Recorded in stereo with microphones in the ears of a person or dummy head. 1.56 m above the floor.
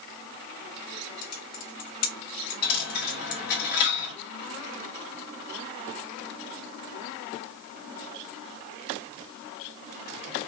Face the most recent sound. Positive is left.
turn(degrees=55)  # may be behind; listen again after turning